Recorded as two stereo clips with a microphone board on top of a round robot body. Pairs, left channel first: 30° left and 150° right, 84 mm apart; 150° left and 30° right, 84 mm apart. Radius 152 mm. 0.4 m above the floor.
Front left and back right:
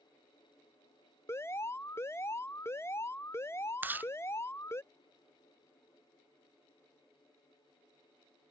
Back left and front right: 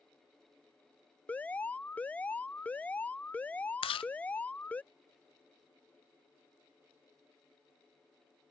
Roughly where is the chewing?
Behind left.